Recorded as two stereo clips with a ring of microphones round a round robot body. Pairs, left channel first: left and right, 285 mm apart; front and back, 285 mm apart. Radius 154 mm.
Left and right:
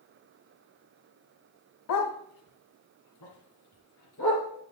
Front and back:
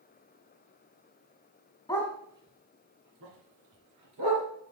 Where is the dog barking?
75° left, 1.0 m; by 4.5 s 145° left, 3 m.